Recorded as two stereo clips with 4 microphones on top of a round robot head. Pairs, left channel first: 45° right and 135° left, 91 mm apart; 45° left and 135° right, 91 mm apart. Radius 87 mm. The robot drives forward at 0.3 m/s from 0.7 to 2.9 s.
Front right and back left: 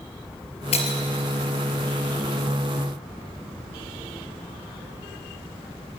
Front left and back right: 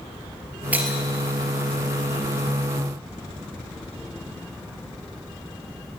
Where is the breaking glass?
60° right, 2 m.